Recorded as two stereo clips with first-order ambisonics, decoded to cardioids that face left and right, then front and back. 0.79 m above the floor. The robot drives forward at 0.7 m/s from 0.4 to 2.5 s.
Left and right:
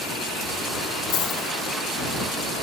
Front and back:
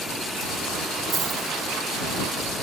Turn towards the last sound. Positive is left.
turn(degrees=145)